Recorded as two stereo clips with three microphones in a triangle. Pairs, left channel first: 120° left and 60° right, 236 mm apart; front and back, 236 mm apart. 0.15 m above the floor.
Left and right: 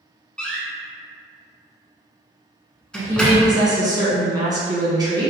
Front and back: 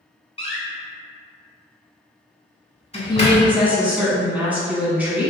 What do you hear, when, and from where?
0.4 s a door slam: 35° left, 0.9 m
2.9 s a woman speaking: 105° right, 1.1 m